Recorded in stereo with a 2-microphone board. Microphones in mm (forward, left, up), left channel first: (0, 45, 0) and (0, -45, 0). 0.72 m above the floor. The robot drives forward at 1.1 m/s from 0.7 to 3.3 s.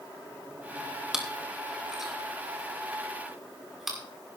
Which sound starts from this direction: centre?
Chewing, at 1.1 s.